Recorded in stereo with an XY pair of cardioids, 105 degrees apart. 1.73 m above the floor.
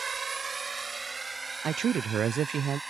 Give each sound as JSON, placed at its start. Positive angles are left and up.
{"t": 0.0, "sound": "a drone", "azimuth_deg": -35}
{"t": 1.6, "sound": "a man speaking", "azimuth_deg": -55}